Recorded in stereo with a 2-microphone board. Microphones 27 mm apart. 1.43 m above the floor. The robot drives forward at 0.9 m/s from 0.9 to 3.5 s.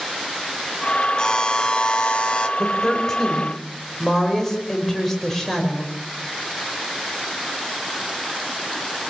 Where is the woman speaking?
15° left (ahead or behind), 5 m.